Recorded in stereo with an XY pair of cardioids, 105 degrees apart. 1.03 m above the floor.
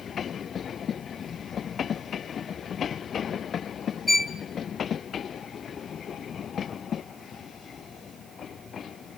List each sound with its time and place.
4.1 s a violin: 15° left, 0.6 m